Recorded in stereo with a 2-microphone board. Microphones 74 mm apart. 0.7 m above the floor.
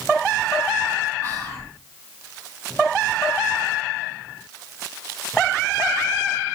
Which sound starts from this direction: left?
Whispering, at 1.2 s.